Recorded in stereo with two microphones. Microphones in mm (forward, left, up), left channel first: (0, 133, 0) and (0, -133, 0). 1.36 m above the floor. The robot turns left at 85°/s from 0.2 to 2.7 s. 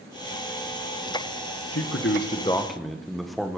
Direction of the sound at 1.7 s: 85° left.